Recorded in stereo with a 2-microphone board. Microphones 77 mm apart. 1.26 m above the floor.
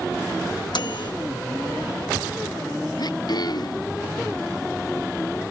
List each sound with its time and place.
0.7 s a microwave: 75° left (ahead or behind)
3.0 s throat clearing: 60° left (ahead or behind)